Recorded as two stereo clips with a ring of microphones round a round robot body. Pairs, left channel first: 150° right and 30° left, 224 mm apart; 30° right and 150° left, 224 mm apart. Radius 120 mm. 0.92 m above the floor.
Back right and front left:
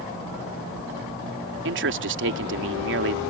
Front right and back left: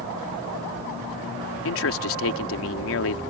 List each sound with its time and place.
1.6 s a man speaking: 5° right